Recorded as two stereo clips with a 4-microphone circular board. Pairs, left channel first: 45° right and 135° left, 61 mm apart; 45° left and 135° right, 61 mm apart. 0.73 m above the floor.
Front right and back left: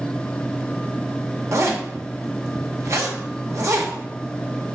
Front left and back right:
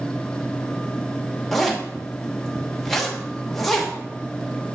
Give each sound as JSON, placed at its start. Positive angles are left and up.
{"t": 1.5, "sound": "a zipper", "azimuth_deg": 130, "distance_m": 0.8}